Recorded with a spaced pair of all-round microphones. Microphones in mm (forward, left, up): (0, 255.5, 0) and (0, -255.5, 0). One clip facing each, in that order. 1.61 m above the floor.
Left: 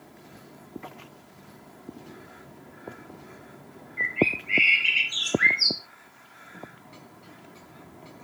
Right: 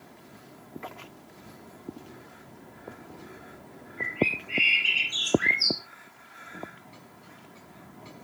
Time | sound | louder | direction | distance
4.0 | a bird | left 3 dB | 70° left (ahead or behind) | 3.5 m